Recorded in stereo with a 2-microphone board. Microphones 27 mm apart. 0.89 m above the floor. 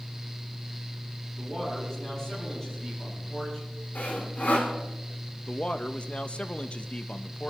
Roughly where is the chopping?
No chopping in this recording.